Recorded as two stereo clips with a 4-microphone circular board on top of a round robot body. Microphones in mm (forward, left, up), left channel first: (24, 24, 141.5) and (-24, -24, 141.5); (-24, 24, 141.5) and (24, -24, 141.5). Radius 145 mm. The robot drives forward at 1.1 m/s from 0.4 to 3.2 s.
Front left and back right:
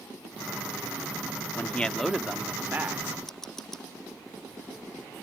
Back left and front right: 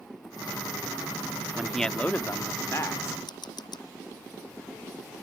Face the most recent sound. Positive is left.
turn(degrees=130)